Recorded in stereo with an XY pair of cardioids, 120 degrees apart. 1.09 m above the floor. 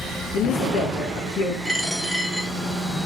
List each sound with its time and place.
0.3 s a woman speaking: 65° left, 1.0 m
1.6 s a dropped coin: straight ahead, 1.3 m